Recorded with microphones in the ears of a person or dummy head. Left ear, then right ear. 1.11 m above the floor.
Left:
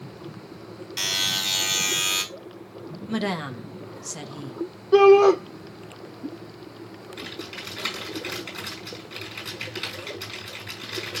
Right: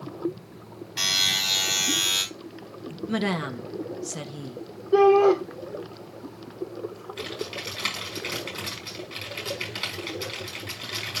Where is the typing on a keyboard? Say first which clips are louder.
Right 3 dB; 5° left (ahead or behind), 5 m.